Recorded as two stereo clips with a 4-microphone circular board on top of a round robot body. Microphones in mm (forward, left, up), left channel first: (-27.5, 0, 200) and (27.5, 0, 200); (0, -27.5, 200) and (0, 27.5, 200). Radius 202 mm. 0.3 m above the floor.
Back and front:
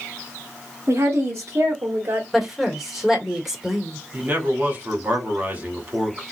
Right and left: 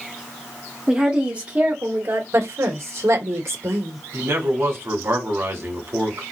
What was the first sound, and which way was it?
A woman speaking, 15° left.